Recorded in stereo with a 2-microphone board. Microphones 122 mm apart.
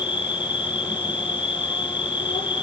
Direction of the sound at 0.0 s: 40° left (ahead or behind).